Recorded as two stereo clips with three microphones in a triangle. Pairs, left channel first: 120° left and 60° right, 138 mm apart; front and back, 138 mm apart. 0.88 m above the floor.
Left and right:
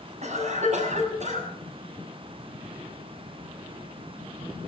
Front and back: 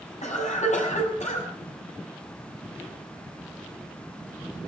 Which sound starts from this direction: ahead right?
A cough, at 0.2 s.